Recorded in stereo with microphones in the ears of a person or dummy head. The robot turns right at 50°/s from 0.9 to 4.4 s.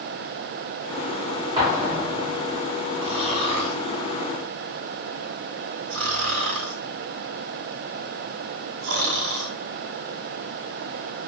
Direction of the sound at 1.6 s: 30° right (ahead or behind).